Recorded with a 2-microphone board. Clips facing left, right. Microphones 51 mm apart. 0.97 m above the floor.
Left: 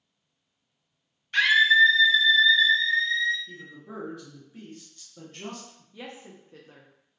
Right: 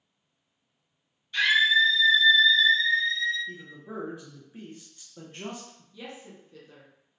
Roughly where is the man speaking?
Centre.